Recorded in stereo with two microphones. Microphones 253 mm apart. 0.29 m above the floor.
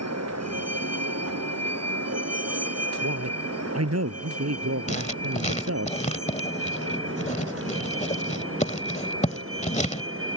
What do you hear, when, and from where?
0.0 s a vehicle: 85° right; by 10.4 s 55° right (ahead or behind)
3.0 s a man speaking: 75° right (ahead or behind)
4.9 s writing: 25° left (ahead or behind)